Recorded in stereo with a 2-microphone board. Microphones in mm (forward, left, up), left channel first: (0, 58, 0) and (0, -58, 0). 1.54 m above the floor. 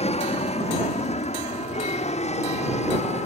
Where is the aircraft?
70° left (ahead or behind); by 3.3 s 75° left (ahead or behind).